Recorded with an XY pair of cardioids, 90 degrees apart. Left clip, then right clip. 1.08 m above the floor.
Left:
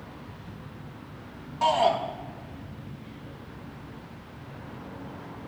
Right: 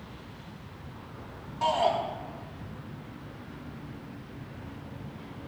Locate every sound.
1.6 s a shout: 25° left, 6.5 m